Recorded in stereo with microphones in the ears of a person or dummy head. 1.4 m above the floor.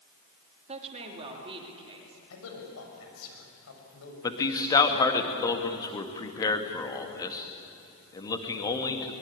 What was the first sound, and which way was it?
A woman speaking, 30° right (ahead or behind).